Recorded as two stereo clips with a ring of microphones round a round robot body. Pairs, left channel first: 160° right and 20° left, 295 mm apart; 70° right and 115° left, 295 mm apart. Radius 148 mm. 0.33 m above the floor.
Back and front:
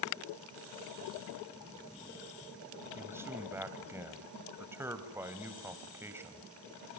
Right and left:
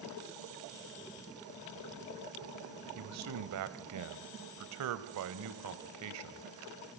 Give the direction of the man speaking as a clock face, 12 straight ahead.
9 o'clock.